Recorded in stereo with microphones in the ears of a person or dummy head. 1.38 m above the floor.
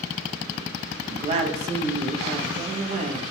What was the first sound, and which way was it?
A woman speaking, 45° right (ahead or behind).